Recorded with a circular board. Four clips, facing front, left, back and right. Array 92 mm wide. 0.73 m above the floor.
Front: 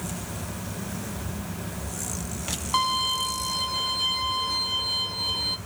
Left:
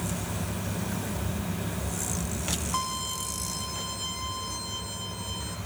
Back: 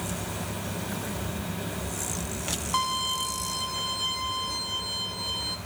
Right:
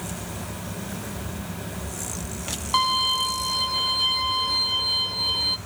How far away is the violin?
About 0.8 m.